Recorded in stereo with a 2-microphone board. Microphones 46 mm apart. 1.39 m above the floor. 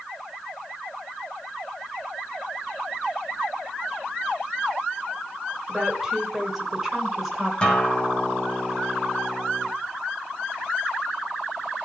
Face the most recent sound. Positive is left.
turn(degrees=20)  # may be behind; listen again after turning